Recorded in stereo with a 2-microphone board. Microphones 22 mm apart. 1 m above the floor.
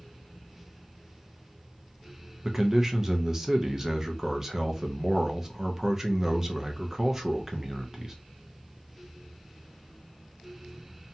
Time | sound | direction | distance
2.4 | a man speaking | 25° right (ahead or behind) | 0.5 m